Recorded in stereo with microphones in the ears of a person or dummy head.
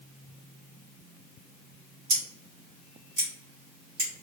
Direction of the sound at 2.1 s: 45° right (ahead or behind).